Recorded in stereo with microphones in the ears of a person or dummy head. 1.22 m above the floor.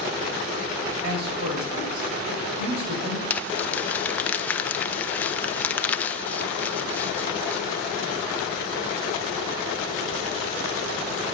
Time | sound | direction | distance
1.0 | a man speaking | 55° right (ahead or behind) | 4.5 m
3.3 | crumpling | 15° left (ahead or behind) | 0.7 m